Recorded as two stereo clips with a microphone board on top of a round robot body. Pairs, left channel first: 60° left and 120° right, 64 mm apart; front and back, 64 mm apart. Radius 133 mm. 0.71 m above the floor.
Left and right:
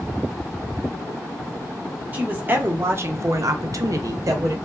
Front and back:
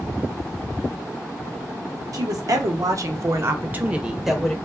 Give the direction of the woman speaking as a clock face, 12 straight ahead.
6 o'clock.